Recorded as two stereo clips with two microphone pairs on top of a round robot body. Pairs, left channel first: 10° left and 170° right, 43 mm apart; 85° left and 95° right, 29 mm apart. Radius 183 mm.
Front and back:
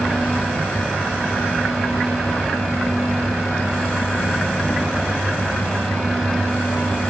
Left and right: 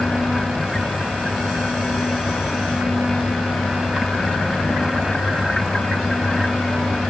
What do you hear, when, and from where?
Only background noise.